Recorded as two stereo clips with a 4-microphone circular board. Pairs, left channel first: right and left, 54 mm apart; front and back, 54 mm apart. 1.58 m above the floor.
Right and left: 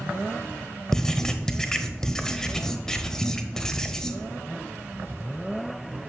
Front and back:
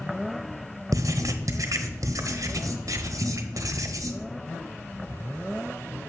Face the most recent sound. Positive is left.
turn(degrees=-170)